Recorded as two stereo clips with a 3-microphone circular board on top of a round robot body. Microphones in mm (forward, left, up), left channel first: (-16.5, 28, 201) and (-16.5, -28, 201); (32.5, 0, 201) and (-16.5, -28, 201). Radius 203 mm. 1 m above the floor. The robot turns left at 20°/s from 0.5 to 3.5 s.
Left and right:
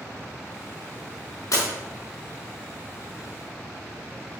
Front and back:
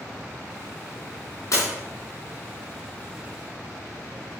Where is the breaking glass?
60° left, 5 m.